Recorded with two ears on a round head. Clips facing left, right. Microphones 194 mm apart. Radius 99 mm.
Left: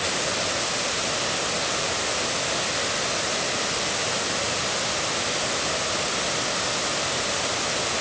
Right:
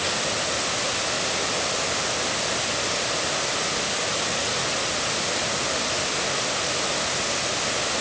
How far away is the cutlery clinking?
I don't hear cutlery clinking.